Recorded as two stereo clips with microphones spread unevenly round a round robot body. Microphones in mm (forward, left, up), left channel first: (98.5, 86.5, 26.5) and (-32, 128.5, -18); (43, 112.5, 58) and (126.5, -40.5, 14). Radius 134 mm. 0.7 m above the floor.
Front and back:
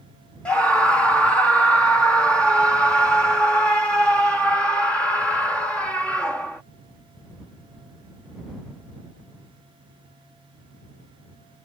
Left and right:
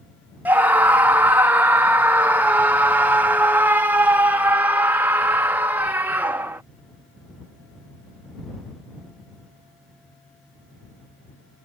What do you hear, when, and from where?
0.5 s a scream: 120° right